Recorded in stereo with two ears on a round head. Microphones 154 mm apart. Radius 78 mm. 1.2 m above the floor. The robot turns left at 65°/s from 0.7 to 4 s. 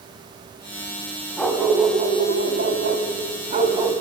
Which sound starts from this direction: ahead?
A dog barking, at 1.4 s.